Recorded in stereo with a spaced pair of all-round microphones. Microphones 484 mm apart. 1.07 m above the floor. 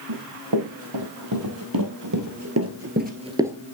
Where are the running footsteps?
55° right (ahead or behind), 2.5 m; by 3.6 s 5° right (ahead or behind), 1.0 m.